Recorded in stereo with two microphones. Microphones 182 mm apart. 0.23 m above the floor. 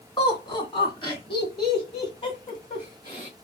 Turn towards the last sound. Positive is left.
turn(degrees=25)  # may be behind; listen again after turning